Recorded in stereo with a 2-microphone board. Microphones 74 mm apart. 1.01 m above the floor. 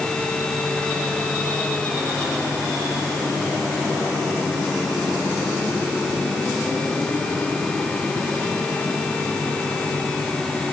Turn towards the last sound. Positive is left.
No sound to turn to.